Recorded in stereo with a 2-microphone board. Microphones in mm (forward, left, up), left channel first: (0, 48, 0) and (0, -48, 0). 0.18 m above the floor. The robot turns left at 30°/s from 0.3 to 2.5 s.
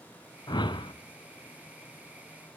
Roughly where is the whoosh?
Left.